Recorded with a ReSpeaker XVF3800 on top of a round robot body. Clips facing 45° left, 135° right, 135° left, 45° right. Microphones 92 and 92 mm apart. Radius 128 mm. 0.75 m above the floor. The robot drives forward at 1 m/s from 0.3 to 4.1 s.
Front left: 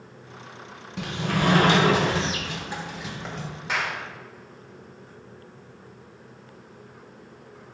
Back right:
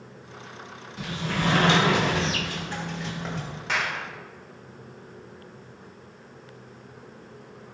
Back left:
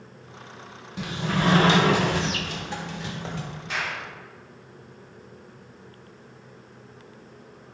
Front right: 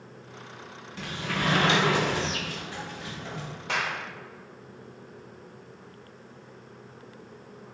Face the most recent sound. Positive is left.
turn(degrees=-40)